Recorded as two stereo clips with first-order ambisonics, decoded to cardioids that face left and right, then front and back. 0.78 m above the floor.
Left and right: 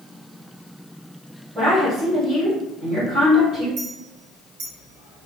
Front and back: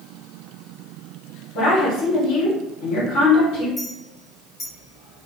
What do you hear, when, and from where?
1.6 s a woman speaking: 15° right, 1.4 m
3.8 s a clink: 70° right, 1.0 m